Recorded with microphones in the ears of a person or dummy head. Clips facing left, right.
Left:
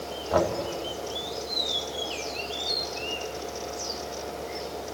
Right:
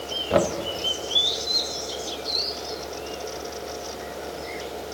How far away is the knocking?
About 1.8 m.